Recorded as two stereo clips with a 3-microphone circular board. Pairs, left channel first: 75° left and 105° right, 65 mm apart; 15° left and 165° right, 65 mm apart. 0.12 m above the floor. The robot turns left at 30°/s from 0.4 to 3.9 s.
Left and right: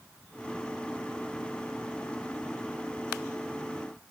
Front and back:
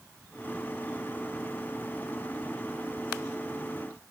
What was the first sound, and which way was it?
Only background noise.